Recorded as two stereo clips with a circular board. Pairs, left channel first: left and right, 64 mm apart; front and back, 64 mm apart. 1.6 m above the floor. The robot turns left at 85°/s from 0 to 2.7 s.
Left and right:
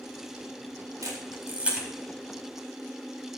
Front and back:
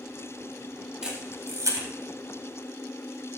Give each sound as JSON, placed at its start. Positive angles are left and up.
{"t": 1.0, "sound": "a camera shutter", "azimuth_deg": -105, "distance_m": 4.0}